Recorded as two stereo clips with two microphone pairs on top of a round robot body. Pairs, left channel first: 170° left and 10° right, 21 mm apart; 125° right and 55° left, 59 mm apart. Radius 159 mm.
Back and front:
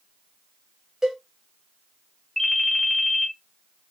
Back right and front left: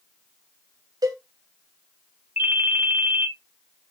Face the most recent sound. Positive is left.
turn(degrees=110)